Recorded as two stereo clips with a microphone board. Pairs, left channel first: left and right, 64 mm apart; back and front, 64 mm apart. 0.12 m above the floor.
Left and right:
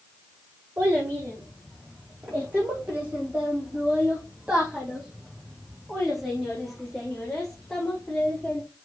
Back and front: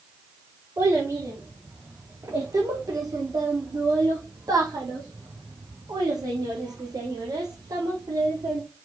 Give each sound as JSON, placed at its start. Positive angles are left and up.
{"t": 0.8, "sound": "a child speaking", "azimuth_deg": -35, "distance_m": 6.0}